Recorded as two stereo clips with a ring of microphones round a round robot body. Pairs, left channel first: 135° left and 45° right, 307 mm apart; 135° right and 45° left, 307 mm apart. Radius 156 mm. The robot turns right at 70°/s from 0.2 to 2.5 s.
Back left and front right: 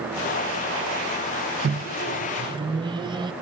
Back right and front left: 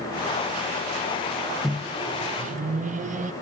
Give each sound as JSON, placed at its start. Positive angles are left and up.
{"t": 1.6, "sound": "a microwave", "azimuth_deg": -45, "distance_m": 0.6}